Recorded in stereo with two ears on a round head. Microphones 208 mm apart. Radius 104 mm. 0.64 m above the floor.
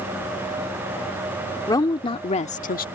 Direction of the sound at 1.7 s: 15° left (ahead or behind).